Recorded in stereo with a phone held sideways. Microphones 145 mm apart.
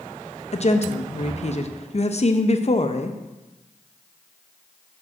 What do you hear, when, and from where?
0.5 s a woman speaking: 50° left (ahead or behind), 0.5 m